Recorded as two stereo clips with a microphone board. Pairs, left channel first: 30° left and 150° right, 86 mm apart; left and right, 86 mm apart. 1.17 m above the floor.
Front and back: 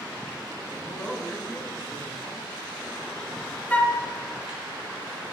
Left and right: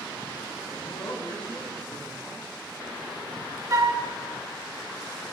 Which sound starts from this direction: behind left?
A man speaking, at 0.7 s.